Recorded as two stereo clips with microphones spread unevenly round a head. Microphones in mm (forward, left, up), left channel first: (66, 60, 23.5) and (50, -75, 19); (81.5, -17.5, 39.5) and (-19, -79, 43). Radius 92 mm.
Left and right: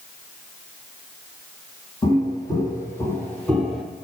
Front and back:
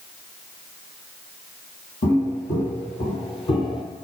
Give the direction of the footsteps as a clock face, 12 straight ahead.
11 o'clock.